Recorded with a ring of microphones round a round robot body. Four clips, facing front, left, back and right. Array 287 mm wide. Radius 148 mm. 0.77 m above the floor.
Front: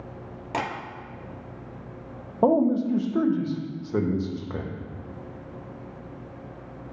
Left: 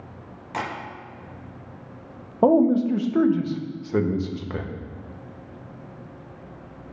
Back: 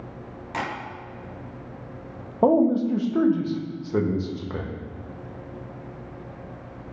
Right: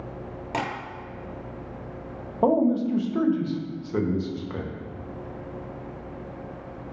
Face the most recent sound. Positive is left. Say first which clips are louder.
# left 4 dB, back 2 dB
turn(degrees=100)